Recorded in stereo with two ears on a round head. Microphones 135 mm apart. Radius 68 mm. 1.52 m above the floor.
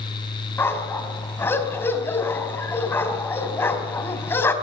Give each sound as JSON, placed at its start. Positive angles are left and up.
{"t": 0.6, "sound": "a dog barking", "side_deg": 15, "distance_m": 4.0}